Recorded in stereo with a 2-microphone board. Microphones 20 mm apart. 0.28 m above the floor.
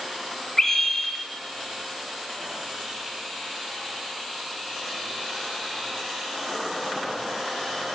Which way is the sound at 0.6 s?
25° left (ahead or behind).